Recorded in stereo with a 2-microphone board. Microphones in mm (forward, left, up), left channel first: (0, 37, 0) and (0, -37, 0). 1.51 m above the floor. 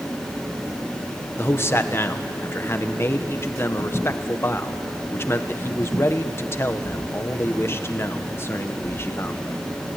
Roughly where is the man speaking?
Left.